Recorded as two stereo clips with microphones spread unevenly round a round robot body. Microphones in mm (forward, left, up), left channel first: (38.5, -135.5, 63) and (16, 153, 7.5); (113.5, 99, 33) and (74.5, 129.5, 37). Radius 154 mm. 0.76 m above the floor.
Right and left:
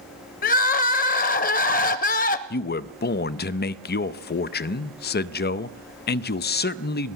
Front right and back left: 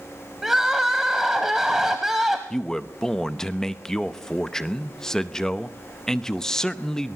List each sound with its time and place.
0.4 s crying: 135° right, 0.7 m
2.5 s a man speaking: 80° right, 0.7 m